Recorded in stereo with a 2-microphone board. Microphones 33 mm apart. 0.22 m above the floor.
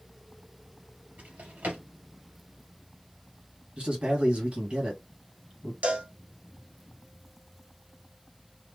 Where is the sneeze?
No sneeze in this recording.